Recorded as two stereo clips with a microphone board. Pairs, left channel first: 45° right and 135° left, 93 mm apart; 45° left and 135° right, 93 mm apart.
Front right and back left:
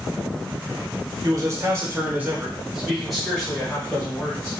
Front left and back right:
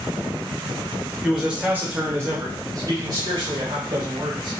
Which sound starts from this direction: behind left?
A man speaking, at 1.2 s.